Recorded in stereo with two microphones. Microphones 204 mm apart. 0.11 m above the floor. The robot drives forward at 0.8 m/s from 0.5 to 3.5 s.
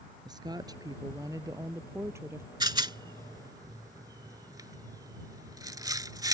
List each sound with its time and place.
0.2 s a woman speaking: 20° right (ahead or behind); by 2.5 s 10° right (ahead or behind)
2.6 s a rattle: 20° right (ahead or behind)